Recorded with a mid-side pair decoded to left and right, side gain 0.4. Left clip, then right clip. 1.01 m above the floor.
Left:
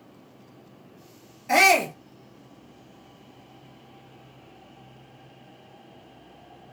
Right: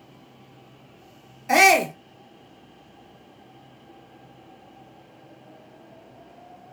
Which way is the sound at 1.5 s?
30° right.